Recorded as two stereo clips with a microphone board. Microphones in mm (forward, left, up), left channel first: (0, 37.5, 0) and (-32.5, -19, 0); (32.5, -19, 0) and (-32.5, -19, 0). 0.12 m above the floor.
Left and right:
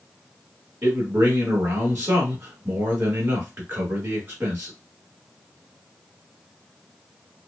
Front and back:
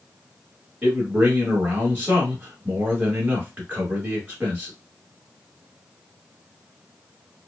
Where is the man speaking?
130° right, 1.2 m.